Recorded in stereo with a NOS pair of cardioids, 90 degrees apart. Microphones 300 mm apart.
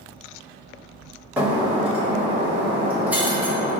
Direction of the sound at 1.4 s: 5° right.